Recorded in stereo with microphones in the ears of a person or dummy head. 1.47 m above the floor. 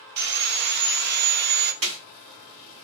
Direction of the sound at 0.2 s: 45° right (ahead or behind).